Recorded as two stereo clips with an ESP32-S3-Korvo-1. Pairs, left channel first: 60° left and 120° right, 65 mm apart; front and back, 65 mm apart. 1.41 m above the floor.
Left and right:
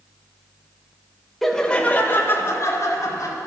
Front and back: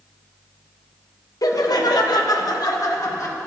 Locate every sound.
1.4 s laughter: 30° right, 1.4 m; by 3.4 s 30° left, 2.5 m